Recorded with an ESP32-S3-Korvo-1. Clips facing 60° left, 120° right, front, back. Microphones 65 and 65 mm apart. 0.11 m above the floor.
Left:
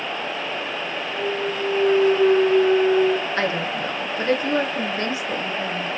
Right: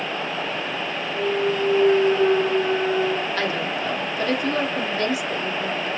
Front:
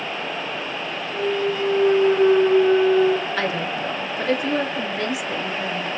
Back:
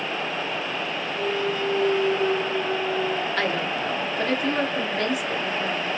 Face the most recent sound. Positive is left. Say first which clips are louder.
# left 1 dB, front 1 dB
turn(degrees=75)